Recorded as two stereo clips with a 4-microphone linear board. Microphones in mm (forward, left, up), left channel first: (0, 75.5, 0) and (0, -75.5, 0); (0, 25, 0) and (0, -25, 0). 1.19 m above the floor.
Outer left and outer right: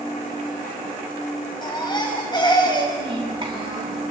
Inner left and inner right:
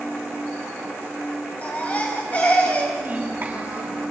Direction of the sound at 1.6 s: 30° left (ahead or behind).